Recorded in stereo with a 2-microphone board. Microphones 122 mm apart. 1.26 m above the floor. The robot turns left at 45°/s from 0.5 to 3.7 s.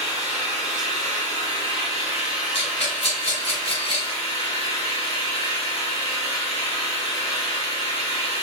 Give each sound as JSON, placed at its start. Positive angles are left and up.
{"t": 0.0, "sound": "an engine running", "azimuth_deg": -85, "distance_m": 1.3}
{"t": 2.5, "sound": "a rattle", "side_deg": 50, "distance_m": 1.6}